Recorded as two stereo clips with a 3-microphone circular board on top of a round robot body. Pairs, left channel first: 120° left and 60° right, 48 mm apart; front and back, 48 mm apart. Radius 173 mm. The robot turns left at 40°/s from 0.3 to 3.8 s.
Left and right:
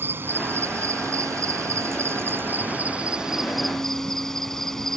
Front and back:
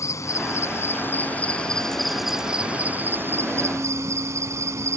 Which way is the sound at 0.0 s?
20° right.